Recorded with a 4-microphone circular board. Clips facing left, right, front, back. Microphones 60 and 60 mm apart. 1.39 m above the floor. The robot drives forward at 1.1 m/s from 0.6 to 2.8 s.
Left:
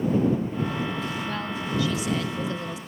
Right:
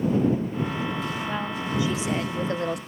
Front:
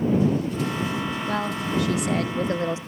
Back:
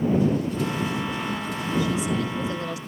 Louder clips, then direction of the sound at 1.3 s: Right 1 dB, front 2 dB; 15° right.